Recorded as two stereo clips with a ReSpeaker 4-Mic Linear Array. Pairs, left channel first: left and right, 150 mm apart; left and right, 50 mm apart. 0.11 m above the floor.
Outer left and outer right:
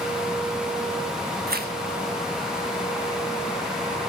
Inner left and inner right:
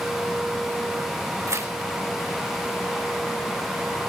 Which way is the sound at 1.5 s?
75° right (ahead or behind).